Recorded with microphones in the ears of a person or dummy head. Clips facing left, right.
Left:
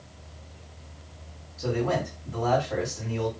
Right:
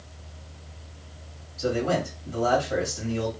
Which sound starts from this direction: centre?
A man speaking, at 1.6 s.